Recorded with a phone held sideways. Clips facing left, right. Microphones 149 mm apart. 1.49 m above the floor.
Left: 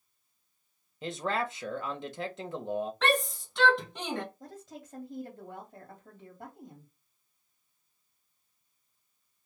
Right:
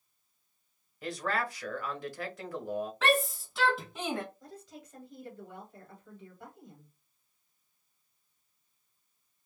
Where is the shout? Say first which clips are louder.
Right 2 dB; 5° right (ahead or behind), 1.5 m.